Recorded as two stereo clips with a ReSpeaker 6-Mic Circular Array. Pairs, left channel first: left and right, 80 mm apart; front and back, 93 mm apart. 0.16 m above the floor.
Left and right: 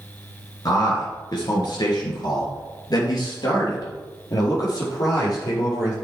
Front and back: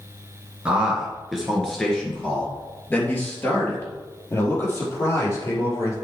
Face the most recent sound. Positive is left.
turn(degrees=50)